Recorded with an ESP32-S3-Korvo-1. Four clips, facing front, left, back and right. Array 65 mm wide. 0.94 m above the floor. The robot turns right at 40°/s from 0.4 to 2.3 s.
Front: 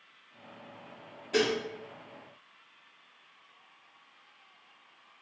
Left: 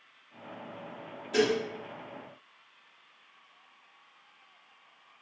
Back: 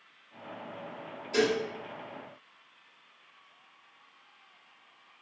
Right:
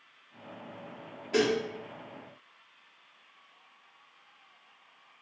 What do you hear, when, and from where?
1.3 s dishes clattering: 65° right, 1.1 m; by 1.6 s 55° right, 1.1 m